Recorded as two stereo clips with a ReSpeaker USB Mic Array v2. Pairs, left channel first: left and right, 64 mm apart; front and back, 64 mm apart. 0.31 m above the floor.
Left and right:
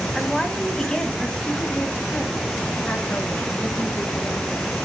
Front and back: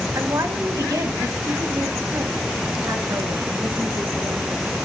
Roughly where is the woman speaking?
Behind.